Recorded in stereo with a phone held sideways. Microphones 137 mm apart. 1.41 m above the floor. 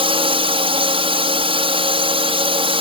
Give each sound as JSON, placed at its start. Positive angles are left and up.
{"t": 0.0, "sound": "a drone", "side_deg": -40}